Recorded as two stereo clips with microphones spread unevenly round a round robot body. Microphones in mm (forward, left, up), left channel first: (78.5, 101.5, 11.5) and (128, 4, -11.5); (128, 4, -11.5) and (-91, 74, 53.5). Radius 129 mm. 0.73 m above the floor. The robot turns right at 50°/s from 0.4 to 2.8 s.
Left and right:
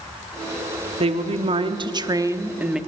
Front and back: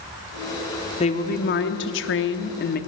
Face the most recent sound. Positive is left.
turn(degrees=15)